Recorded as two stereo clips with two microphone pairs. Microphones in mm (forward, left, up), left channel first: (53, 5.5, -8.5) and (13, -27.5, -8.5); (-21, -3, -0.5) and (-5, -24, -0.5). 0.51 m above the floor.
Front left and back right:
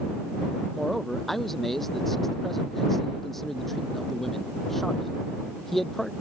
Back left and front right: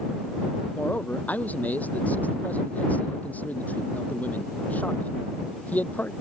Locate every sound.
0.8 s a man speaking: 125° left